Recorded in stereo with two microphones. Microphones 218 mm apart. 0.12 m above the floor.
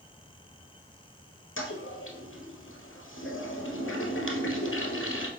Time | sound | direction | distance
1.6 | a toilet flushing | 65° left (ahead or behind) | 1.6 m